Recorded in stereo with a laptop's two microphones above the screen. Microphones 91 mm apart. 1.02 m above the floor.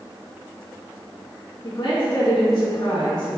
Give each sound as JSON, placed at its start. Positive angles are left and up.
{"t": 1.6, "sound": "a woman speaking", "side_deg": 50, "distance_m": 2.5}